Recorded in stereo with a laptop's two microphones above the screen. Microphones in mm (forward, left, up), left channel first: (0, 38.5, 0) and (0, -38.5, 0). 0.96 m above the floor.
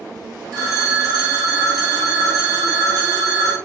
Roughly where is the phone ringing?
Right.